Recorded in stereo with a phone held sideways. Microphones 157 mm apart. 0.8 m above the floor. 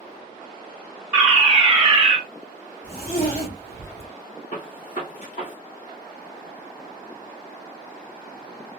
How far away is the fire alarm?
About 1.9 m.